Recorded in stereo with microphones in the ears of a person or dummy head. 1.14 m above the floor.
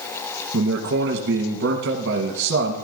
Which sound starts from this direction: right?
A man speaking, at 0.5 s.